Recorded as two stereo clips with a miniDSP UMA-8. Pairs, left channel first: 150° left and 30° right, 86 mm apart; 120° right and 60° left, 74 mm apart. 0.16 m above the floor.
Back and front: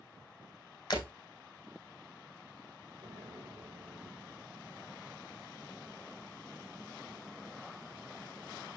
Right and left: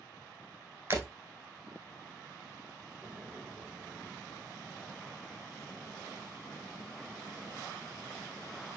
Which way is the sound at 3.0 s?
Straight ahead.